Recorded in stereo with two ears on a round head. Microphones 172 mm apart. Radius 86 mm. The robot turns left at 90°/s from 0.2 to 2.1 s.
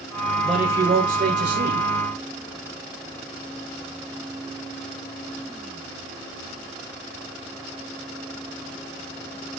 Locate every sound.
0.4 s a man speaking: 5° left, 2 m; by 1.9 s 130° right, 2 m